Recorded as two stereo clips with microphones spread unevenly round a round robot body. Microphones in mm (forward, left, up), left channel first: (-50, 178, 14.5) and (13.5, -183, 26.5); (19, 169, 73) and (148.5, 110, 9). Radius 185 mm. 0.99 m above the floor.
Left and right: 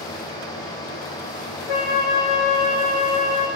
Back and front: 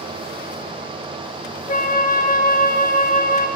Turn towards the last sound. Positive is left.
turn(degrees=125)